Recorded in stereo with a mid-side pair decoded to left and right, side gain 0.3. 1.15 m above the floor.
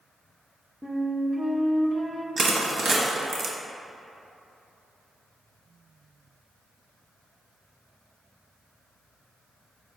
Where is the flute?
20° right, 0.6 m.